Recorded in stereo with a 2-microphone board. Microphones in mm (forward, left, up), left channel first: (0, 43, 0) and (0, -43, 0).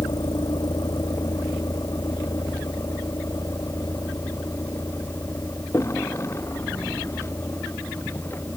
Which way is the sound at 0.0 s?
55° left (ahead or behind).